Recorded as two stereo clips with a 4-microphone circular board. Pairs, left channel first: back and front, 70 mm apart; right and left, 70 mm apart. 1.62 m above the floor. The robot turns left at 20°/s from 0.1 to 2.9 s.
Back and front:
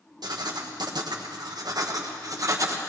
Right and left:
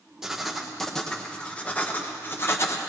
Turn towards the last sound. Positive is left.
turn(degrees=-45)